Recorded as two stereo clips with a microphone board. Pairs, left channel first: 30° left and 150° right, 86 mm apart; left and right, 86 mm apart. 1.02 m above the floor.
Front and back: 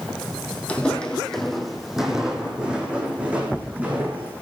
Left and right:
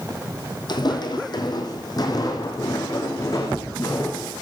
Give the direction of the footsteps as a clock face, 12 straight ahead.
9 o'clock.